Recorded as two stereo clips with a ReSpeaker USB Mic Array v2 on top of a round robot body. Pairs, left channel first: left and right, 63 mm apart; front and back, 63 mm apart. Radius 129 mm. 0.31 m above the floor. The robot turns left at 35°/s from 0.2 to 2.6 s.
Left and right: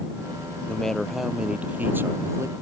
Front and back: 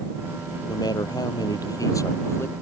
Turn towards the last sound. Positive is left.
turn(degrees=-55)